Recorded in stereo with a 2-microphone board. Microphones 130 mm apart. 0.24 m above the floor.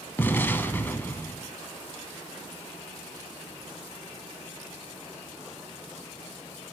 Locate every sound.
0.2 s an explosion: 15° left (ahead or behind), 0.7 m